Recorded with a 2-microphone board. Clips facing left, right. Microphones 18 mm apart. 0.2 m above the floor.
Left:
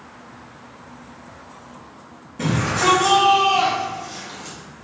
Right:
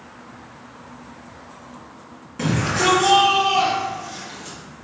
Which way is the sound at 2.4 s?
35° right (ahead or behind).